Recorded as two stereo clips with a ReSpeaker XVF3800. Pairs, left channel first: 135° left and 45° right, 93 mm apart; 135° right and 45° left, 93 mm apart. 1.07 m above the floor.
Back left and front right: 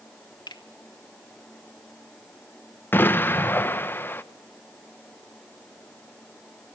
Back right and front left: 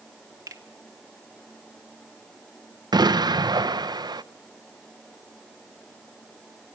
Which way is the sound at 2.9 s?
75° left.